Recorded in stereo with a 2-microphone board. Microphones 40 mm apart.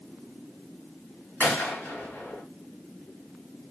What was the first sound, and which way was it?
A gunshot, 60° left (ahead or behind).